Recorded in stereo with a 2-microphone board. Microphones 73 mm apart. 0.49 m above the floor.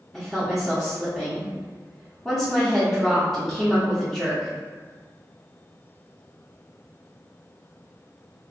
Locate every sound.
0.1 s a woman speaking: 5° left (ahead or behind), 0.8 m